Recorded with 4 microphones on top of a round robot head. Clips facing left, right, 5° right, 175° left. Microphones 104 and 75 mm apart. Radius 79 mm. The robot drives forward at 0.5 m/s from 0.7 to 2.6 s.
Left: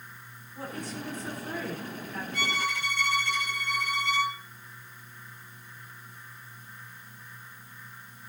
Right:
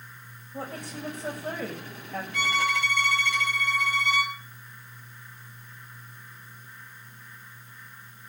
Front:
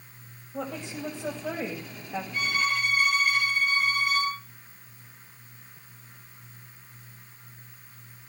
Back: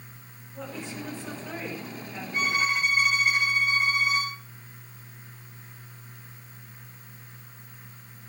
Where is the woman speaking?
40° right, 7 m; by 2.2 s 45° right, 6.5 m.